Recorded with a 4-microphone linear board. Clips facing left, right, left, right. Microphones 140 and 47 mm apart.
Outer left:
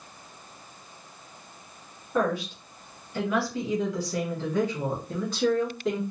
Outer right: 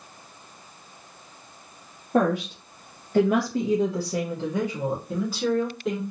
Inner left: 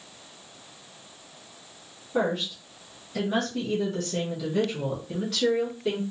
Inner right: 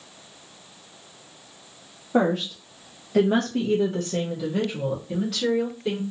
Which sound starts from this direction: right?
A woman speaking, at 2.1 s.